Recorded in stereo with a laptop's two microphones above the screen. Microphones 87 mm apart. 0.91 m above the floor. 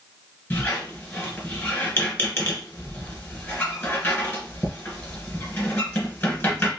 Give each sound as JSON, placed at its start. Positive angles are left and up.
{"t": 0.5, "sound": "a squeak", "side_deg": 25, "distance_m": 2.5}